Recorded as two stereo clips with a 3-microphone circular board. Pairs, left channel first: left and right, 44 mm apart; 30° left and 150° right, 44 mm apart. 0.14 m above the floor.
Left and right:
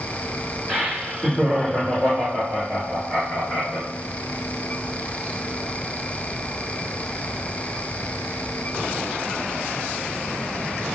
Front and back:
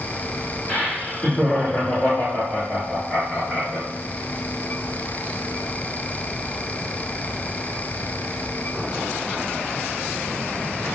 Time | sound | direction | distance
0.7 | laughter | 10° right | 1.9 m